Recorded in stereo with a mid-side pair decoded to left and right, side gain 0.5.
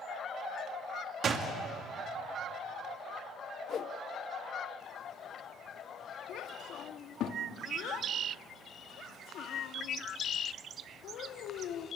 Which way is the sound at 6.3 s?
70° left.